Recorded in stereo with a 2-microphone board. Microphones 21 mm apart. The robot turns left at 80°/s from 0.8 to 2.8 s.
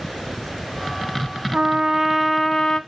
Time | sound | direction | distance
1.5 | a trumpet | 120° right | 0.6 m